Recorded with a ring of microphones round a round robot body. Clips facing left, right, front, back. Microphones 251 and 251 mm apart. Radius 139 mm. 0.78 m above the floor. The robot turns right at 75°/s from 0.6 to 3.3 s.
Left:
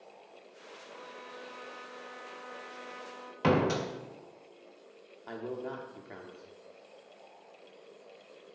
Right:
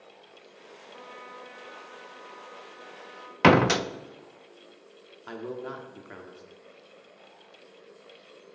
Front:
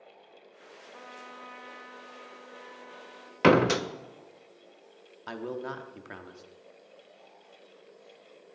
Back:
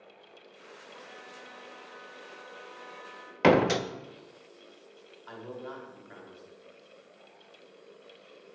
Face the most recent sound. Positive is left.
turn(degrees=-10)